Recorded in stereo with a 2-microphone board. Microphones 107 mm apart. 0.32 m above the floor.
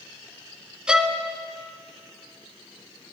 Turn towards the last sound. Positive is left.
turn(degrees=-5)  # may be behind; listen again after turning